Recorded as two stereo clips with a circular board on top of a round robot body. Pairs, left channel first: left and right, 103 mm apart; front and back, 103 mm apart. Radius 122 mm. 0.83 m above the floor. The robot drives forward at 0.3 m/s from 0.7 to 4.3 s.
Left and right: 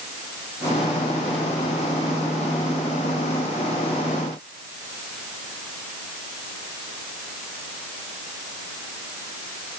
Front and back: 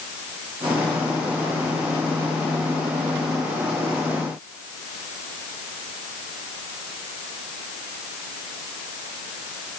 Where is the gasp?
No gasp in this recording.